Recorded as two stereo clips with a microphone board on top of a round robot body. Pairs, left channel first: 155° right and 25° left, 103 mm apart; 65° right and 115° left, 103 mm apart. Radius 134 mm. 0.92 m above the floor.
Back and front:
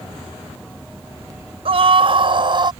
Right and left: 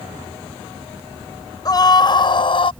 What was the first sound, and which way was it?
A scream, 10° right.